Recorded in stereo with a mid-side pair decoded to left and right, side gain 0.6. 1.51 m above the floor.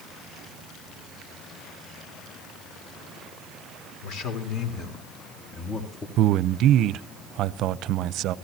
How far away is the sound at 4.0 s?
About 4 m.